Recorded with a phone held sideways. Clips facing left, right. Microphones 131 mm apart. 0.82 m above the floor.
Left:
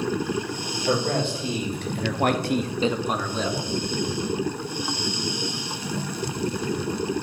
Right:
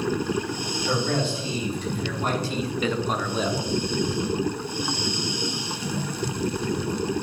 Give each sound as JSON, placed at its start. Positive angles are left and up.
{"t": 0.9, "sound": "a man speaking", "side_deg": 55, "distance_m": 2.5}